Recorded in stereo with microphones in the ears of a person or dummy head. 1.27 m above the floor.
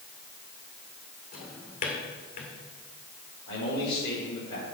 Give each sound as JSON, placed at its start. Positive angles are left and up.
{"t": 1.3, "sound": "a drawer", "side_deg": 50, "distance_m": 2.0}
{"t": 3.5, "sound": "a man speaking", "side_deg": 30, "distance_m": 4.0}